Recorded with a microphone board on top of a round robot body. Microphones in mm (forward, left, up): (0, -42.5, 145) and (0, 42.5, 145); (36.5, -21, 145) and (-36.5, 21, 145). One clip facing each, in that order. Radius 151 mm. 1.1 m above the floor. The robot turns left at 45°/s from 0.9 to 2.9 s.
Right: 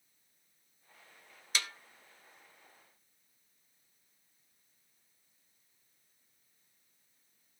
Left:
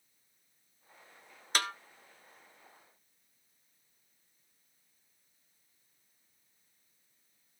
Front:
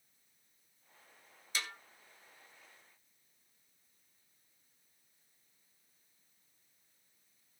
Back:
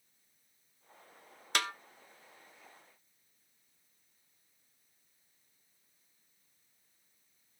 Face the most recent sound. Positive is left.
turn(degrees=70)